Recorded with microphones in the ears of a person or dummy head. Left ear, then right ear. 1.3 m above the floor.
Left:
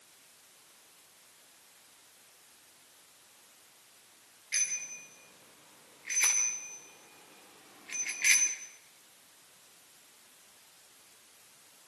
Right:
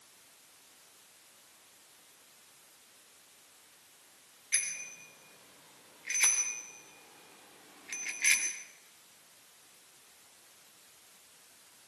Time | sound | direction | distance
4.5 | a bicycle bell | 5° right (ahead or behind) | 4 m